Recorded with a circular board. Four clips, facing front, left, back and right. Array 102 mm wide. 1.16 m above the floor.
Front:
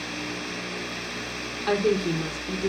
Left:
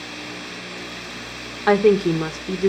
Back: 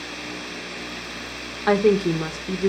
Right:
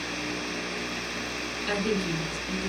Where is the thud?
No thud in this recording.